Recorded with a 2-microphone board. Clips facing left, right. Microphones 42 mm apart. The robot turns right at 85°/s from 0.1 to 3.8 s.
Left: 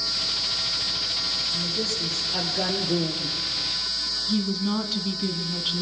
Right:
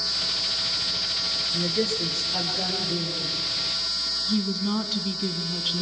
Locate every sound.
1.5 s a woman speaking: 65° right, 3.5 m; by 3.4 s 90° left, 3.5 m
4.3 s a woman speaking: centre (ahead or behind), 1.8 m